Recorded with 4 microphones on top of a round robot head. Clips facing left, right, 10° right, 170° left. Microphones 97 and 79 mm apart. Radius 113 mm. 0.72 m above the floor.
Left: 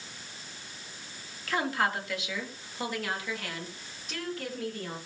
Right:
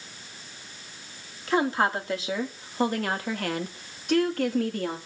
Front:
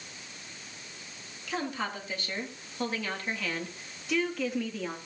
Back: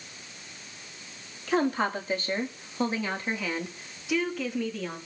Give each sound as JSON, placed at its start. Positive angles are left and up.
{"t": 1.5, "sound": "a woman speaking", "azimuth_deg": -150, "distance_m": 2.0}